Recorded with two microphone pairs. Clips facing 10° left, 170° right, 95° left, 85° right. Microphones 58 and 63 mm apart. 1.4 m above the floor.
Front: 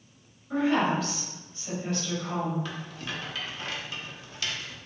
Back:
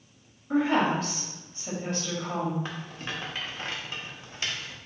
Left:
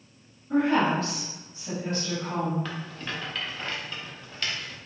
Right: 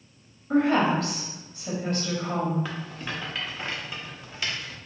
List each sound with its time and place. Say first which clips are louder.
0.5 s a woman speaking: back 1 dB, right 1 dB; 120° right, 1.1 m
2.6 s a rattle: even, right 1 dB; 155° right, 0.8 m